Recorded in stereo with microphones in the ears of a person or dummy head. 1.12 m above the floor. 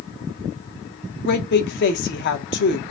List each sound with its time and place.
1.2 s a woman speaking: 55° left (ahead or behind), 0.7 m